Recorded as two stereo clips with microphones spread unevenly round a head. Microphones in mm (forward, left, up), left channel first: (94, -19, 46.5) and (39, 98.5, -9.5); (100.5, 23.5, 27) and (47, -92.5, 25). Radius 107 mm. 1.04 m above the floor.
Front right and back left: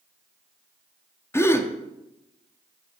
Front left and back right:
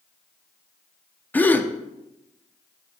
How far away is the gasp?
About 0.8 m.